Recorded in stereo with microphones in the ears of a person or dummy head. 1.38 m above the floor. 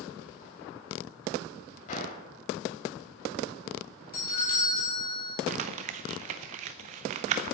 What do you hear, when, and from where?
1.9 s a gunshot: 45° left (ahead or behind), 1.7 m
4.1 s a doorbell: 45° left (ahead or behind), 3 m
5.5 s crumpling: 35° right (ahead or behind), 0.7 m